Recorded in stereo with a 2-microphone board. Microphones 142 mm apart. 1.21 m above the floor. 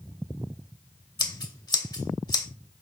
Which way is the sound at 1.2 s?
30° left (ahead or behind).